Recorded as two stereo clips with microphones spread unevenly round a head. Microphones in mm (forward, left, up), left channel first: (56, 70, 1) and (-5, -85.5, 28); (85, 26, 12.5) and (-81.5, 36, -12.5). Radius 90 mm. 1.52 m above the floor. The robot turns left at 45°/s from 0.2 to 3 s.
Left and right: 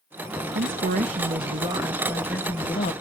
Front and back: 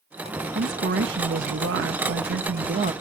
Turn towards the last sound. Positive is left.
turn(degrees=120)